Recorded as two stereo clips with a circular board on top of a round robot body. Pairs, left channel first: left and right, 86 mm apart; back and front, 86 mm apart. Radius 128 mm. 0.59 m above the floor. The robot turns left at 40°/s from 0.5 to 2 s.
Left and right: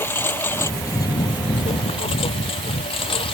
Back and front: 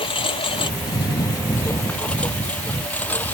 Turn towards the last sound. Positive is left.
turn(degrees=110)